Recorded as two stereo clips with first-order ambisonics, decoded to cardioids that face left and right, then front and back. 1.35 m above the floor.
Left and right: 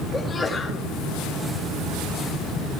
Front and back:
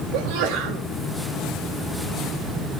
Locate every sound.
0.1 s a sneeze: 170° left, 3 m